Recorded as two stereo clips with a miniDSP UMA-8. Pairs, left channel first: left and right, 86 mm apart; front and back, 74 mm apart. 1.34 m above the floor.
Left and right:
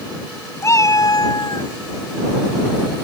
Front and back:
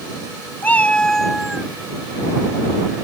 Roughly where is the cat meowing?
Ahead left.